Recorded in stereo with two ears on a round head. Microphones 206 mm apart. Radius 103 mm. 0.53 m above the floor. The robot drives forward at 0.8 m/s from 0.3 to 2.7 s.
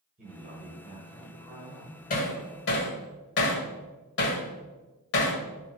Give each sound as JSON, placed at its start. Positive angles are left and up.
{"t": 0.2, "sound": "a man speaking", "side_deg": -40, "distance_m": 2.5}
{"t": 2.1, "sound": "hammering", "side_deg": 40, "distance_m": 1.7}